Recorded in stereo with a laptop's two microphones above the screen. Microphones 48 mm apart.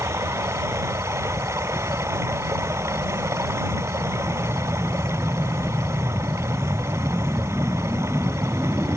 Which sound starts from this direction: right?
Running water, at 0.0 s.